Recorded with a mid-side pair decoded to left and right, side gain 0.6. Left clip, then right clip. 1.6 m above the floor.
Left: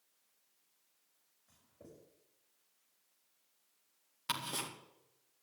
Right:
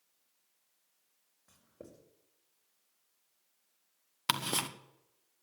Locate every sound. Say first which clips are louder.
1.5 s writing: right 5 dB; 60° right, 4.5 m
4.3 s ticking: right 6 dB; 50° right, 1.4 m